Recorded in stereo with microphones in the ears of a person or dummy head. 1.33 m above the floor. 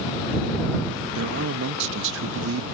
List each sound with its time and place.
1.1 s a man speaking: 60° right (ahead or behind)